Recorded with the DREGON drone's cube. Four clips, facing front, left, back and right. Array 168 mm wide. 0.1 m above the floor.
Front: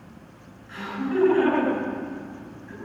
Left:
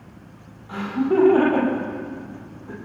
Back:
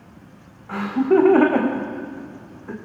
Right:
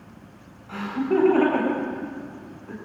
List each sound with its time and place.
0.7 s laughter: 175° left, 7.5 m